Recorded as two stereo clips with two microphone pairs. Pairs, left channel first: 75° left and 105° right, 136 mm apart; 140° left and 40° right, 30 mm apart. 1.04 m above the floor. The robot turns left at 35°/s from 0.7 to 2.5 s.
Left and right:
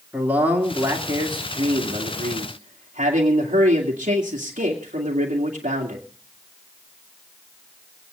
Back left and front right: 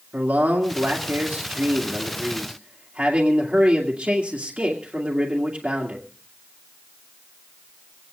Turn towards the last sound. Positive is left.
turn(degrees=-85)